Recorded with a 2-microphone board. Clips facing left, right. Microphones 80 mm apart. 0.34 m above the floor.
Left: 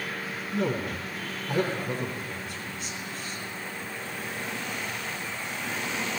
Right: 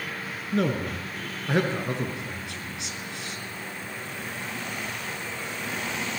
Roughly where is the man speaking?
Right.